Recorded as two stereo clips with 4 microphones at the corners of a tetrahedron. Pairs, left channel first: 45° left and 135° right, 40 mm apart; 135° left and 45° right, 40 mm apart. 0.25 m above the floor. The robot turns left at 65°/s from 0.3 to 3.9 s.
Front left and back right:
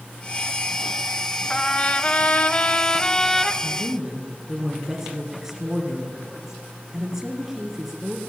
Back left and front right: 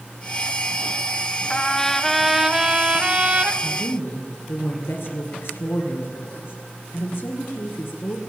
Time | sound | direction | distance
1.5 | a trumpet | 90° left | 0.8 m
3.6 | a woman speaking | 165° left | 3 m